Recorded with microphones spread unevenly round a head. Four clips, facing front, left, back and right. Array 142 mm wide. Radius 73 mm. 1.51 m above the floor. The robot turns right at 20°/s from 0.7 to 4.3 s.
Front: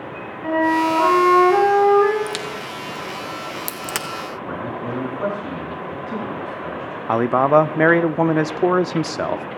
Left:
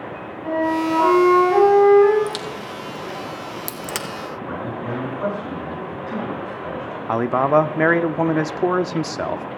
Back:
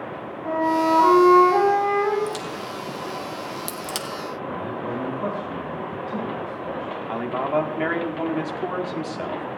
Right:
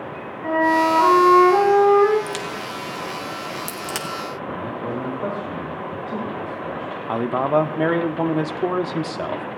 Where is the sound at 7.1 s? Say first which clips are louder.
Left 3 dB, front 10 dB; straight ahead, 0.5 m.